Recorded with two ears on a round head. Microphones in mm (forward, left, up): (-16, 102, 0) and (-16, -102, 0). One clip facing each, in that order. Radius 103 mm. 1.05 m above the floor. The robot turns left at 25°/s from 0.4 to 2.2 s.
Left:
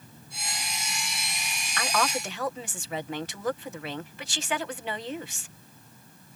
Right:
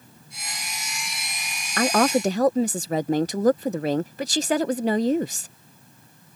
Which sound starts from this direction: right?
A woman speaking, at 1.8 s.